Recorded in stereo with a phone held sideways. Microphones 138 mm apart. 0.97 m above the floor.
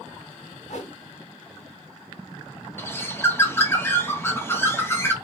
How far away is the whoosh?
About 2 m.